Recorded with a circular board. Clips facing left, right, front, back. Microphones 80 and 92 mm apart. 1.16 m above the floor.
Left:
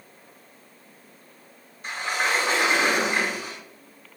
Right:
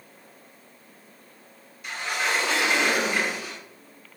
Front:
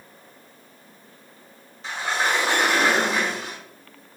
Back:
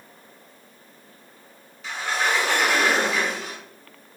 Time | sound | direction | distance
1.8 | a sliding door | 45° left | 1.3 m